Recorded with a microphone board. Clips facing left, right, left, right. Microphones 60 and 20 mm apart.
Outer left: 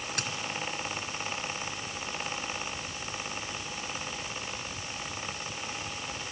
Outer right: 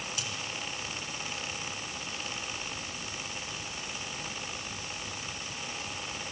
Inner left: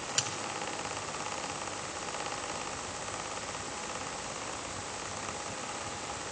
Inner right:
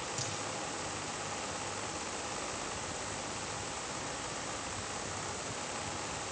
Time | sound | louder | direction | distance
0.2 | a dropped coin | outer left 6 dB, inner left 10 dB | 60° left (ahead or behind) | 3.5 m